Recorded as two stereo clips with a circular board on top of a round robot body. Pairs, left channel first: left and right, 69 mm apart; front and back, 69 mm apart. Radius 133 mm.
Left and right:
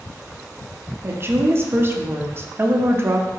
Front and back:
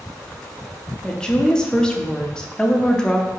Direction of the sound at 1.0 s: 70° right.